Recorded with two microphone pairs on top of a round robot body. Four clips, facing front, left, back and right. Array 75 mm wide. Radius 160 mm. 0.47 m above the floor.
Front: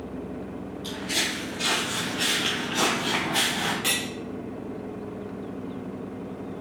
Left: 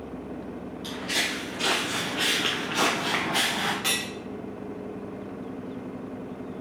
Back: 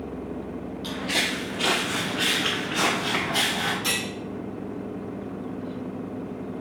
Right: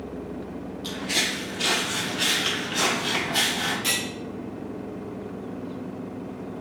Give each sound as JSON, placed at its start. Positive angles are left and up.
{"t": 0.8, "sound": "footsteps", "azimuth_deg": -160, "distance_m": 0.9}
{"t": 3.8, "sound": "cutlery clinking", "azimuth_deg": 55, "distance_m": 1.6}